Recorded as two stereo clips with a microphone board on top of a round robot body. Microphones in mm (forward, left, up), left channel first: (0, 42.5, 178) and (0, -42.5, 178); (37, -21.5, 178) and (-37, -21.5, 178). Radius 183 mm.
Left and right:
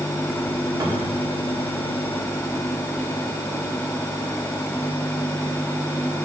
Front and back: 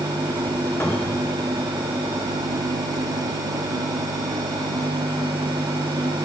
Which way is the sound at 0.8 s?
55° right.